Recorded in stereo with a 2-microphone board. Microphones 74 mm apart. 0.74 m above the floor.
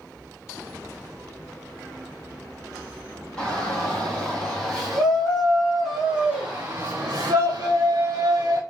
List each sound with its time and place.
3.4 s a shout: 10° left (ahead or behind), 3.5 m; by 8.6 s 55° right (ahead or behind), 1.5 m